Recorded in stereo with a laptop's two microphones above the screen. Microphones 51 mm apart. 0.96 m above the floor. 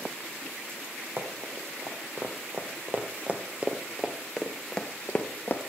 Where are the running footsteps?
50° right (ahead or behind), 2.5 m; by 5.6 s 40° left (ahead or behind), 1.2 m.